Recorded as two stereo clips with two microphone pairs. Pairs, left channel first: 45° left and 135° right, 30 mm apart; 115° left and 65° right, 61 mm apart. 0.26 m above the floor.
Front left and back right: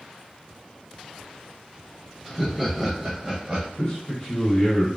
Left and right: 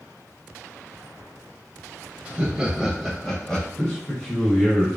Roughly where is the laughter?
Ahead right.